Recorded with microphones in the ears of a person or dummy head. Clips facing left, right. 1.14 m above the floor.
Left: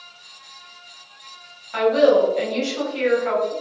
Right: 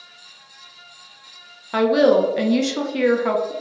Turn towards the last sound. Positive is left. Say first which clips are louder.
# even
turn(degrees=-60)  # may be behind; listen again after turning